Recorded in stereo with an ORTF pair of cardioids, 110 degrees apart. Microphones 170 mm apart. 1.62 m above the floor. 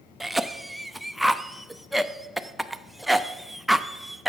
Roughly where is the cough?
Ahead.